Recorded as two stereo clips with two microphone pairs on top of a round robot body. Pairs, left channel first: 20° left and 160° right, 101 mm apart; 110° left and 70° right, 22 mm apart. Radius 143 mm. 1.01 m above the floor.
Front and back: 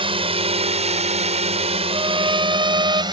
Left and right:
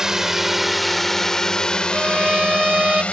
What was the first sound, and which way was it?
A drone, 130° right.